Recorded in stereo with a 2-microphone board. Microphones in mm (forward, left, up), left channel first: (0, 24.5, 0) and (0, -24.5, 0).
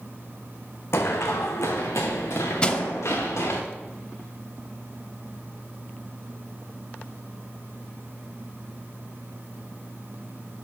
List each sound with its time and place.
0.9 s running footsteps: 60° left (ahead or behind), 1.1 m; by 3.6 s 70° left (ahead or behind), 2.5 m
2.6 s crushing: 20° left (ahead or behind), 0.5 m